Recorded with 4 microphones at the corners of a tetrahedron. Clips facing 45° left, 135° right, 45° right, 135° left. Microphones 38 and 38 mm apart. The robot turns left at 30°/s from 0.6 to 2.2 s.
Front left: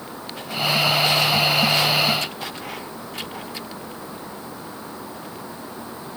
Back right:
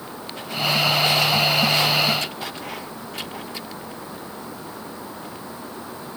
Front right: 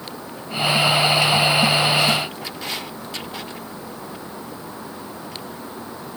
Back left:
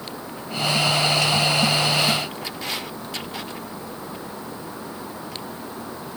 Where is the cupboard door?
I don't hear a cupboard door.